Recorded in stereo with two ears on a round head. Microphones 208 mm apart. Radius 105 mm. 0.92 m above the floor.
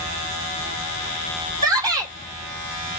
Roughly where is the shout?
Centre.